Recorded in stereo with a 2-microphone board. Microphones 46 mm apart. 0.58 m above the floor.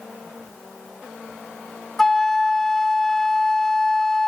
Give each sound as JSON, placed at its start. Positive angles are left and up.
{"t": 2.0, "sound": "a flute", "side_deg": 5, "distance_m": 0.6}